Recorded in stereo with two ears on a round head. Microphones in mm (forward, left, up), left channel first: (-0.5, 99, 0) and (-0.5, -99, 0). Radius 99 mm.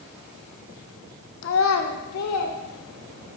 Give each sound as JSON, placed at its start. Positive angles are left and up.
{"t": 1.4, "sound": "a child speaking", "side_deg": 60, "distance_m": 1.0}